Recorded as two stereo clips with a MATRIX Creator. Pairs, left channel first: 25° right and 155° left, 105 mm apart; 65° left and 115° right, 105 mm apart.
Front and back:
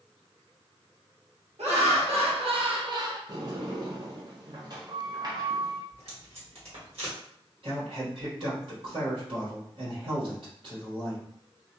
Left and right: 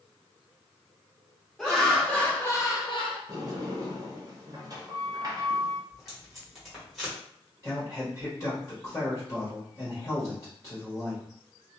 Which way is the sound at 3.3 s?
160° right.